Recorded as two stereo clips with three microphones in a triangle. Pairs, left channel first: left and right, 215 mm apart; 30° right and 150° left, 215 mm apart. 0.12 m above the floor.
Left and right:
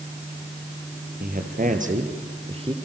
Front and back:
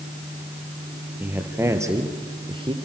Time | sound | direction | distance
1.2 | a man speaking | 130° right | 3.5 m